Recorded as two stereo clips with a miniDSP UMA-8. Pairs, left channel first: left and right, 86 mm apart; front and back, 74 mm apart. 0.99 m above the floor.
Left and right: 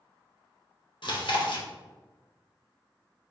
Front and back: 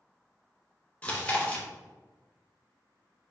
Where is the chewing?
70° left, 0.6 m.